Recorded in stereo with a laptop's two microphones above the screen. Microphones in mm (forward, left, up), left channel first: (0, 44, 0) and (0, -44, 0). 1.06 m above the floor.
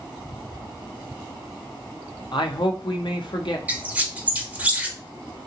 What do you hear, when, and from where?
2.3 s a man speaking: 60° left (ahead or behind), 0.6 m
3.7 s a squeak: 15° right (ahead or behind), 0.8 m